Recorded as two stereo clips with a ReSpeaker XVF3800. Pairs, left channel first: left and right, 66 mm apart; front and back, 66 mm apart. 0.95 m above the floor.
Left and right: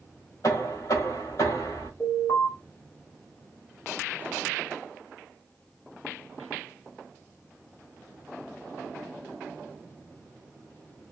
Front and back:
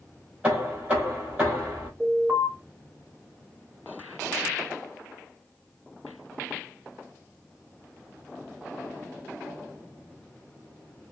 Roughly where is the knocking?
Left.